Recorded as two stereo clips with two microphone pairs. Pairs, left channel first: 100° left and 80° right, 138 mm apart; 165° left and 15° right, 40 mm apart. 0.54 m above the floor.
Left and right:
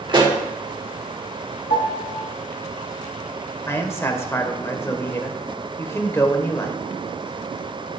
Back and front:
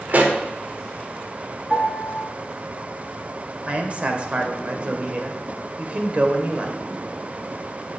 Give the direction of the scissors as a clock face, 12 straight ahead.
I don't hear scissors.